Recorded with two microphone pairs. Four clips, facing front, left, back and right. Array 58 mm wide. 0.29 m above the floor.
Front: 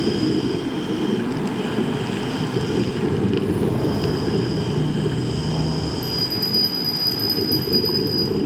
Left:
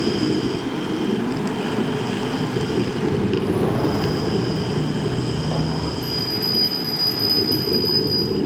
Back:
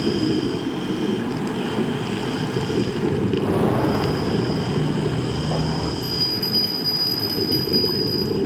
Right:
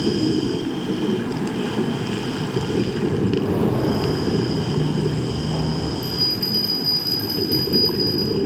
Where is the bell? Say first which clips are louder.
Left 1 dB, even; 165° right, 4.5 m.